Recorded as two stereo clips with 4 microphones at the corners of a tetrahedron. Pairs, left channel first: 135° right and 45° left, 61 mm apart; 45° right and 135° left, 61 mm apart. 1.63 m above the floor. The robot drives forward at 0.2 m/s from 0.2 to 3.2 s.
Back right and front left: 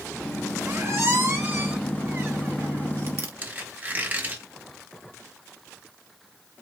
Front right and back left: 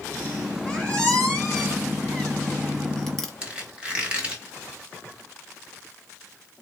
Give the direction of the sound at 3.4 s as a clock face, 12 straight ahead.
9 o'clock.